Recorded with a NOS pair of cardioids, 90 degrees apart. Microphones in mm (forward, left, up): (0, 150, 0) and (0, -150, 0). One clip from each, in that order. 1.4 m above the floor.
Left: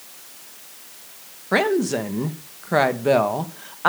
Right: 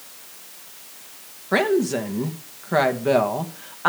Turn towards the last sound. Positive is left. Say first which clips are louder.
# even
turn(degrees=15)